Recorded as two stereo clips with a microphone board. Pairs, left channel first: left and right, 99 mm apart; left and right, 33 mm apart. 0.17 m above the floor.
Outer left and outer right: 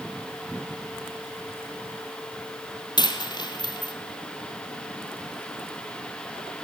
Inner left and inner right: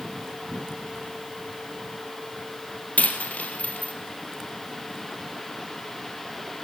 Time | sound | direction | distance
3.0 | a dropped coin | 45° left (ahead or behind) | 1.8 m